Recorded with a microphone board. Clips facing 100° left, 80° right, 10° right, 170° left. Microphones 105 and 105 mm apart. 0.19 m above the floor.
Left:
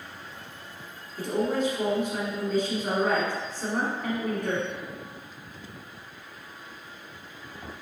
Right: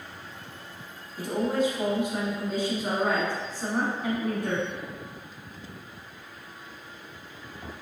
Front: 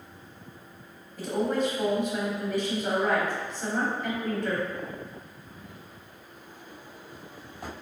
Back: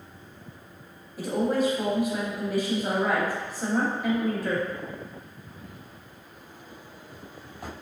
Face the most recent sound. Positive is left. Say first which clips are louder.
# even, back 2 dB
turn(degrees=-130)